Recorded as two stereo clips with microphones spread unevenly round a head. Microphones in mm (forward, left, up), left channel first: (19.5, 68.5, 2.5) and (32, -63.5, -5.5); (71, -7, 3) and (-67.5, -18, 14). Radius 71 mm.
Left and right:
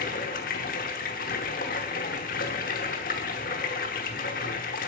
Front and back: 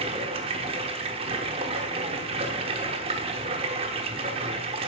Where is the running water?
130° left, 1.0 m.